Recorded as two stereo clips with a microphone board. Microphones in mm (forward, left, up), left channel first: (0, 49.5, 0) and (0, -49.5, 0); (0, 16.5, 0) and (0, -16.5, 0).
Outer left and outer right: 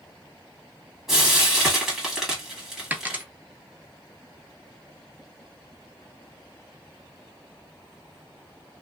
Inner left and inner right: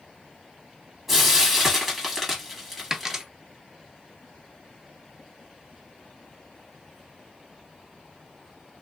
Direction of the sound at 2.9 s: 20° right (ahead or behind).